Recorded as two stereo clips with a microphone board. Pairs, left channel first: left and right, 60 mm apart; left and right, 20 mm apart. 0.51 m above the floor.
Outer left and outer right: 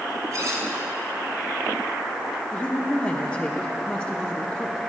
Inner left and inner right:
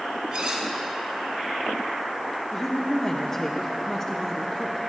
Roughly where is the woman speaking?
Centre.